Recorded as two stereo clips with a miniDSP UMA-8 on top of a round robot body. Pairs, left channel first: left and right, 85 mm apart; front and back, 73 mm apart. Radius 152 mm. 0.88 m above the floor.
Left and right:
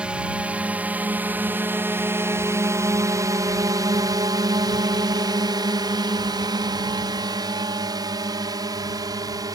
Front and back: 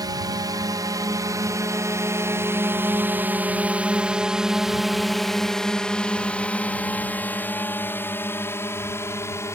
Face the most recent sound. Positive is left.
turn(degrees=-50)